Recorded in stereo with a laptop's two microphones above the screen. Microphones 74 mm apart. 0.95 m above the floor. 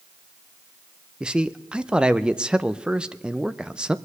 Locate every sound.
1.2 s a man speaking: 15° right (ahead or behind), 0.6 m